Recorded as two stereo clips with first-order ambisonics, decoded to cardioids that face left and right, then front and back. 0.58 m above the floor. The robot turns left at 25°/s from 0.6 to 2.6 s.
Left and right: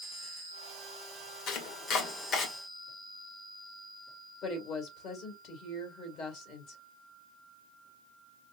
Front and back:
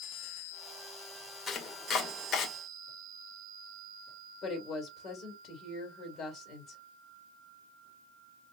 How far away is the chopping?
About 1.1 m.